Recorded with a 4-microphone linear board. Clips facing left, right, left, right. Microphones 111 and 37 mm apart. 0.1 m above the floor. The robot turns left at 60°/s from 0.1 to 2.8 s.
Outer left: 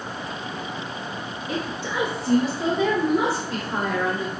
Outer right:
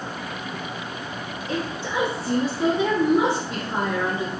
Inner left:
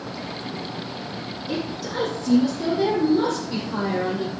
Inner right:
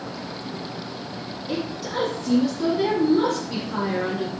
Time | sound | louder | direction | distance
1.5 | a woman speaking | outer right 1 dB, even | 5° left (ahead or behind) | 1.2 m